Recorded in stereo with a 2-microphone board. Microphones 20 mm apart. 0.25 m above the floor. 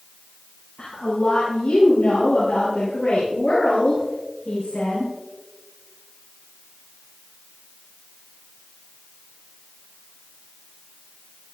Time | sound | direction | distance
0.8 | a woman speaking | 80° left | 6 m